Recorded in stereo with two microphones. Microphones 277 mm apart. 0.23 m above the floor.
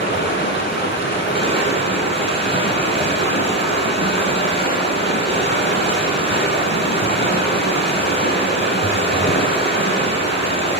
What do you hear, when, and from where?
0.0 s running water: 40° left (ahead or behind), 1.1 m